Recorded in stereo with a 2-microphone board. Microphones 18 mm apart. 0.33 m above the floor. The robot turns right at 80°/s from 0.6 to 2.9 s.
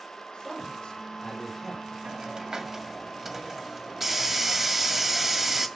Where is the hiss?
90° right, 1.8 m; by 5.7 s 25° right, 1.8 m.